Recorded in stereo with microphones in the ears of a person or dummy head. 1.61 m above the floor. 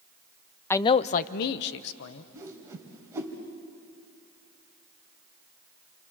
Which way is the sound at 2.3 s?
10° right (ahead or behind).